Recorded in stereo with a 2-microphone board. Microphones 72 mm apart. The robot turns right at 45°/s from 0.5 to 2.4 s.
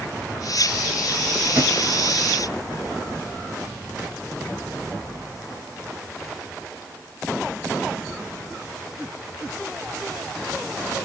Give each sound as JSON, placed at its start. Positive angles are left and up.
{"t": 1.6, "sound": "a thud", "side_deg": -20, "distance_m": 1.9}